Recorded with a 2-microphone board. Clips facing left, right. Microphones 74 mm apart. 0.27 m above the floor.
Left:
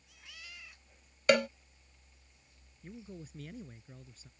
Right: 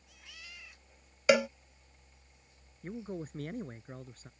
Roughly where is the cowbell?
Centre.